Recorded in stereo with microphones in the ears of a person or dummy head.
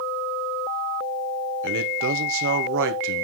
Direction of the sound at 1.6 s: 60° right (ahead or behind).